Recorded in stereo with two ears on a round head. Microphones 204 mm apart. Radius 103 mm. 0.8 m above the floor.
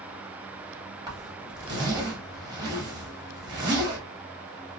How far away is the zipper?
About 1.1 m.